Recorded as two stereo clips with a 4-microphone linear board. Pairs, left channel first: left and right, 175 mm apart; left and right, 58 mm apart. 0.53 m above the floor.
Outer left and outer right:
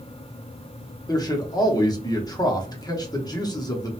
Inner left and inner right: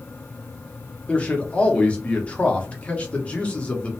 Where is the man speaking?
20° left (ahead or behind), 0.7 m.